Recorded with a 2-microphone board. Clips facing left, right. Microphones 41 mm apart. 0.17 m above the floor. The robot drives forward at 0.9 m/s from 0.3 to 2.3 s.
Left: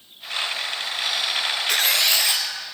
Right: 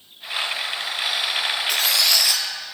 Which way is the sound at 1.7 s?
55° left (ahead or behind).